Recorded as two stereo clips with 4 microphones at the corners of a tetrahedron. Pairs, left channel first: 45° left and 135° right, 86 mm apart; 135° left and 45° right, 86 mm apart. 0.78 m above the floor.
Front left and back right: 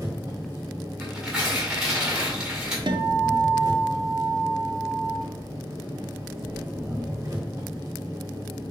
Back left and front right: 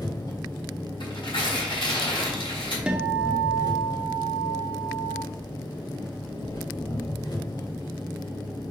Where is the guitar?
120° right, 0.5 m.